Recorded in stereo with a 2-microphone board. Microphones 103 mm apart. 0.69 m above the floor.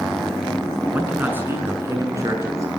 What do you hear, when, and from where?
0.9 s a man speaking: 15° right (ahead or behind), 6.5 m; by 2.7 s 30° right (ahead or behind), 8 m